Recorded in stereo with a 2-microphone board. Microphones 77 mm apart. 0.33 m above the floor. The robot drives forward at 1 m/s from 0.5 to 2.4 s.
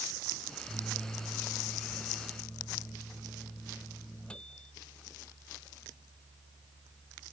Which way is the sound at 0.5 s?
20° left (ahead or behind).